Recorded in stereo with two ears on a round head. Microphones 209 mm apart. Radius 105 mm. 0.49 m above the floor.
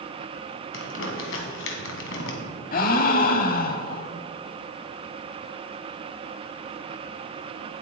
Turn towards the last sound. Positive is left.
turn(degrees=40)  # may be behind; listen again after turning